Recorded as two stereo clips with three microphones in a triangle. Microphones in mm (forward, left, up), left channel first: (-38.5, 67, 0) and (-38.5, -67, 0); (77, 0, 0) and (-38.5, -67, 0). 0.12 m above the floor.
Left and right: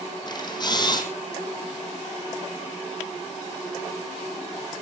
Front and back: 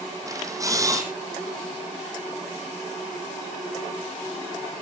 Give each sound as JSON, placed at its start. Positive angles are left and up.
{"t": 0.3, "sound": "a camera shutter", "azimuth_deg": 145, "distance_m": 3.5}